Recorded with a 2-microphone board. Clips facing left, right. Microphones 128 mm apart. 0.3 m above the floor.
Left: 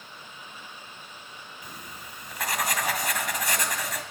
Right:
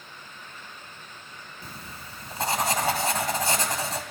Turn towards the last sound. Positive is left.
turn(degrees=-30)  # may be behind; listen again after turning